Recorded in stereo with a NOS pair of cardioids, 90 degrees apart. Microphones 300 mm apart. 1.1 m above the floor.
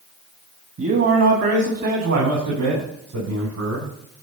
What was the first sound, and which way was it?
A man speaking, 45° right.